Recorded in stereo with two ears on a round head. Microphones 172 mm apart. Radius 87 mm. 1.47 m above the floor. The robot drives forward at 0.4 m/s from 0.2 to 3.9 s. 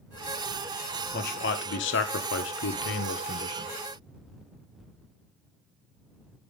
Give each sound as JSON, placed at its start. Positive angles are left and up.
{"t": 1.1, "sound": "a man speaking", "side_deg": 45, "distance_m": 1.0}